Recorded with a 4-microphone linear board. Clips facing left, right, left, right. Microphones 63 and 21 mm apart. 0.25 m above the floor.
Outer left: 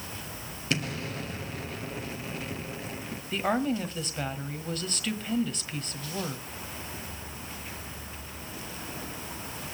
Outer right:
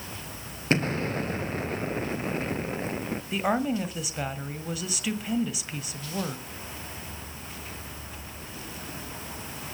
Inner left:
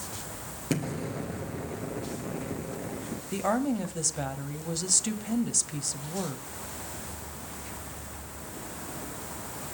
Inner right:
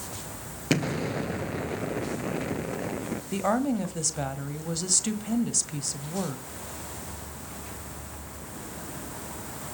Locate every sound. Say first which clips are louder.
0.7 s an explosion: outer right 6 dB, inner right 5 dB; 40° right (ahead or behind), 0.7 m
3.3 s a woman speaking: outer right 1 dB, inner right 1 dB; 5° right (ahead or behind), 1.1 m